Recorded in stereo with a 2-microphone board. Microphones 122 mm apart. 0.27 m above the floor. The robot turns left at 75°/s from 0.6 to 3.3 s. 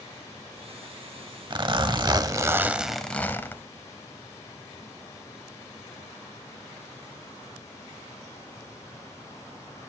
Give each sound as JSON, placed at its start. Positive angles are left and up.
{"t": 1.5, "sound": "a zipper", "azimuth_deg": -70, "distance_m": 0.6}